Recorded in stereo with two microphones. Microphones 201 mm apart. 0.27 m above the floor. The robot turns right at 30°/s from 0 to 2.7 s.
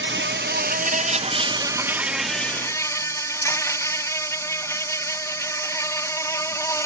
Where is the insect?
70° right; by 6.9 s 15° left.